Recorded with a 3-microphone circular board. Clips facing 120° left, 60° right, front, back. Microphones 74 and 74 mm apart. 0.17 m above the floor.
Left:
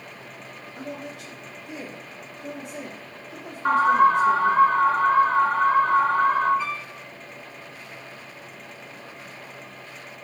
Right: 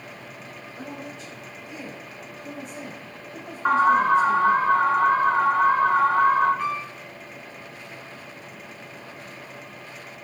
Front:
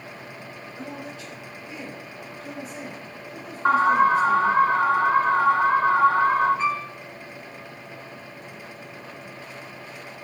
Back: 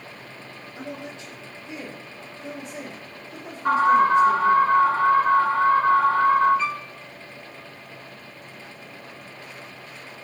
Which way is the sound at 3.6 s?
10° left.